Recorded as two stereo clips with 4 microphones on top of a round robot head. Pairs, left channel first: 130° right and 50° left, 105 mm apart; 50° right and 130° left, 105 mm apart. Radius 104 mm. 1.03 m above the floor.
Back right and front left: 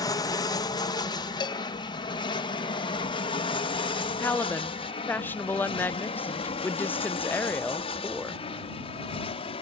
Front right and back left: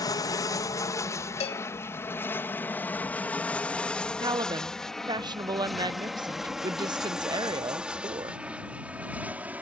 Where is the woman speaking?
160° left.